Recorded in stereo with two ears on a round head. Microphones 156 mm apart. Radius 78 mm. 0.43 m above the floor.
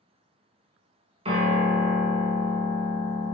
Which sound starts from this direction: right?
A piano, at 1.2 s.